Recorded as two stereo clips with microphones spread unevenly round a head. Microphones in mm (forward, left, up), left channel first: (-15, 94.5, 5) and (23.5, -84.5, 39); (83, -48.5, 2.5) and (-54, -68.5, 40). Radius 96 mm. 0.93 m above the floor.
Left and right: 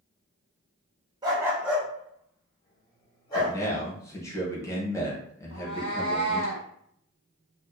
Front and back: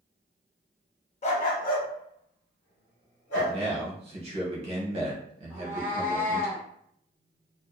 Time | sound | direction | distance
1.2 | a dog barking | 35° right | 0.5 m
3.3 | a man speaking | 150° left | 0.8 m
5.5 | a cat meowing | 115° right | 1.2 m